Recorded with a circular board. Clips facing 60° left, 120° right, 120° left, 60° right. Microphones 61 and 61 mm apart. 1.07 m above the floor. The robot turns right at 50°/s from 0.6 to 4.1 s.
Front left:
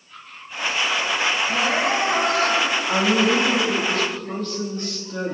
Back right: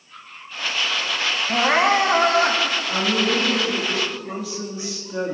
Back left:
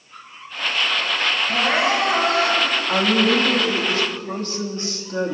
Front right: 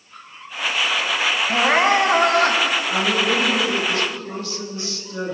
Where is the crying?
125° right, 1.9 m; by 2.8 s 60° right, 1.9 m.